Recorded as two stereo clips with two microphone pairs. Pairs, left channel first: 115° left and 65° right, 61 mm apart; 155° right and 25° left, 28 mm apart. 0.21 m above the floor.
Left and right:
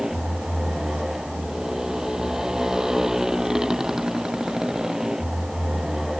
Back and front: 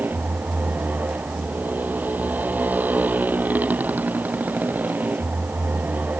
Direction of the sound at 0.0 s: 15° left.